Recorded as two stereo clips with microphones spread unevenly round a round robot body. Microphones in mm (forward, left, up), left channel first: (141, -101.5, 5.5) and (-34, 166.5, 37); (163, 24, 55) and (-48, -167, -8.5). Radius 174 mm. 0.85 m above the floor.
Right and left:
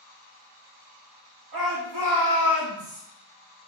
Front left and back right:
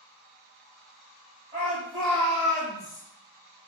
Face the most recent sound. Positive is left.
turn(degrees=90)